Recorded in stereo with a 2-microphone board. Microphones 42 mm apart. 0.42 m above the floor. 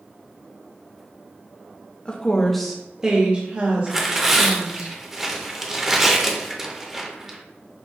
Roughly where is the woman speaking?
Left.